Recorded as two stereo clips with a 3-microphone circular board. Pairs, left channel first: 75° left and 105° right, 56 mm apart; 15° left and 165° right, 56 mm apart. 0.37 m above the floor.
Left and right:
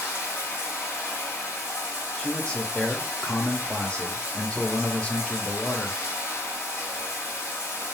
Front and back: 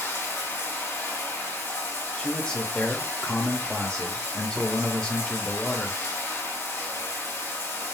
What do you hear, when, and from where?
0.0 s running water: 40° left, 2.0 m
2.2 s a man speaking: 45° left, 0.9 m